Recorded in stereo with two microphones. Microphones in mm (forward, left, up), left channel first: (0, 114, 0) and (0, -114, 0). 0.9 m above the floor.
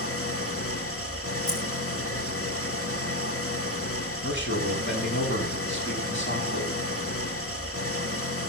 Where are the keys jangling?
85° left, 5 m.